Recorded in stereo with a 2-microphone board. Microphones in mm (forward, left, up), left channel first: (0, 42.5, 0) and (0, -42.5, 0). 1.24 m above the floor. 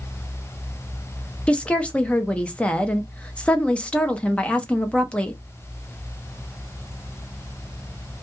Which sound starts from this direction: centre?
A woman speaking, at 1.5 s.